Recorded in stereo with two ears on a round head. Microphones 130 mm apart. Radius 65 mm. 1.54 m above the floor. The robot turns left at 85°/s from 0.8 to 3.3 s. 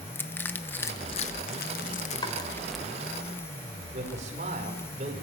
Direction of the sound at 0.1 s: 15° left (ahead or behind).